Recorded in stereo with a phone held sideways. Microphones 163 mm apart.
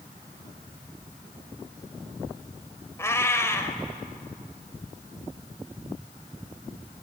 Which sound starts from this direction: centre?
A cat meowing, at 3.0 s.